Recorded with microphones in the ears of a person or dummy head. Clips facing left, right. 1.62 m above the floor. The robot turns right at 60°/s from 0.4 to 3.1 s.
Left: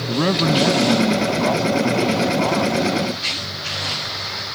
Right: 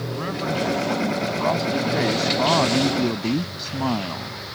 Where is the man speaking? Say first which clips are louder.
Left 10 dB; 100° left; by 4.3 s 95° right.